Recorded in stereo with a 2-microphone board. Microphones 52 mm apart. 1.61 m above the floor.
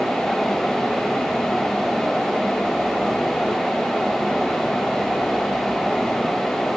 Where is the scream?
I don't hear a scream.